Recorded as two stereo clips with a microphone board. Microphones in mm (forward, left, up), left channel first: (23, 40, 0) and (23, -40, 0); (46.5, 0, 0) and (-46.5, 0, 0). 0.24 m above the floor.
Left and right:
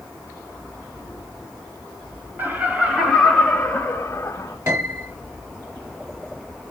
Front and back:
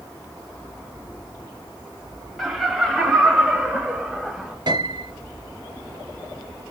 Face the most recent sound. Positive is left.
turn(degrees=-140)